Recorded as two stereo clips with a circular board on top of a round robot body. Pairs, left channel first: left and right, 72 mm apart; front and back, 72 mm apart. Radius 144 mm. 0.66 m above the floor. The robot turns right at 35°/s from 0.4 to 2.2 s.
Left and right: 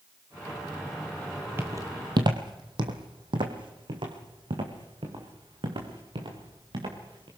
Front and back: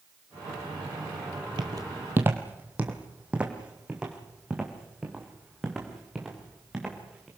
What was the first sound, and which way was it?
Footsteps, 150° right.